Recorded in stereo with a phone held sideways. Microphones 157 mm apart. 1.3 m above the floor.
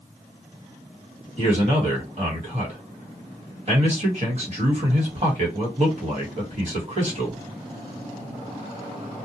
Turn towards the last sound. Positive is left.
turn(degrees=-45)  # may be behind; listen again after turning